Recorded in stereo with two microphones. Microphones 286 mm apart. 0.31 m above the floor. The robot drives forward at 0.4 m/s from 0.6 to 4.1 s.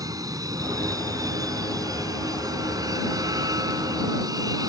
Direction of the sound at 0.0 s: 10° right (ahead or behind).